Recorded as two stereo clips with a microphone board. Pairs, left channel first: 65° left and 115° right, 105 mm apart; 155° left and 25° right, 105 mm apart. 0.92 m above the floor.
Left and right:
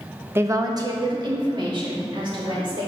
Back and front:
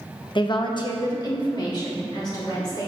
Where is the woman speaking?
175° right, 0.6 m; by 2.9 s 150° right, 3 m.